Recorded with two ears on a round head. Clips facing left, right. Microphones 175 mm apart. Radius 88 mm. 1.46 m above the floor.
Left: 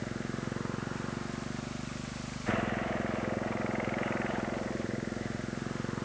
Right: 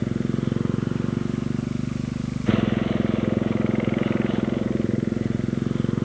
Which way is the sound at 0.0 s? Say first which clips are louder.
Right 12 dB; 45° right (ahead or behind).